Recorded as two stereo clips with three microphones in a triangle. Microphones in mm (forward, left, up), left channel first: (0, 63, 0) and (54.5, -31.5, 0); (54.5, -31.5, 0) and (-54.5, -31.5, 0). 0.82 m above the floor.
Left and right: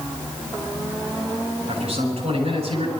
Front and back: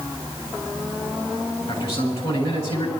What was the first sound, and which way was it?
A man speaking, 30° right.